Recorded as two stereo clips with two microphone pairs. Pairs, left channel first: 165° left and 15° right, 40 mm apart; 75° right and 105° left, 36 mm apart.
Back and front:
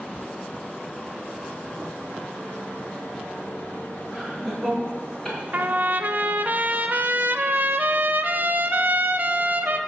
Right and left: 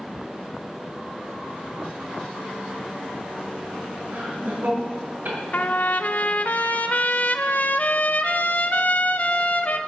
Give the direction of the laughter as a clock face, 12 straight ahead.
10 o'clock.